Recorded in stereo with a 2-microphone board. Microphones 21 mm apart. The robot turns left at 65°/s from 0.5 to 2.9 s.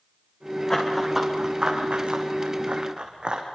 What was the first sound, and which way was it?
Running footsteps, 20° left (ahead or behind).